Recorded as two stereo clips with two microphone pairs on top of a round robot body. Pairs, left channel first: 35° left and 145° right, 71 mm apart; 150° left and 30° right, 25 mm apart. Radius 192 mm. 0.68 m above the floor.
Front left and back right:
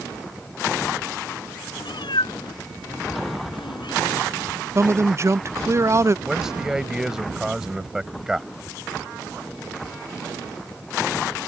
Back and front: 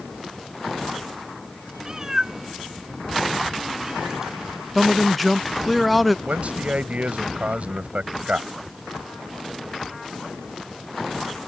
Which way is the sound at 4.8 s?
115° right.